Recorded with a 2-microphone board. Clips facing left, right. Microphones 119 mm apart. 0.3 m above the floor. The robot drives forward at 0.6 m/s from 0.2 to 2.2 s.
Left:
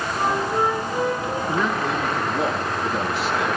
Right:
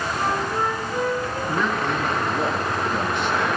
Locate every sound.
0.2 s a flute: 15° left (ahead or behind), 9 m
1.5 s a man speaking: 5° left (ahead or behind), 3.5 m